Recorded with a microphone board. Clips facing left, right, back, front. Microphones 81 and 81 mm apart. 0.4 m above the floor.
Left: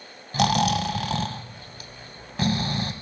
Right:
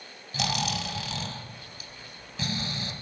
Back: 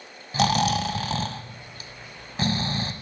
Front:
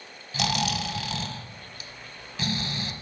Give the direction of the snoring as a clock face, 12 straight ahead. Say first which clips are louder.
Left 9 dB, back 6 dB; 8 o'clock.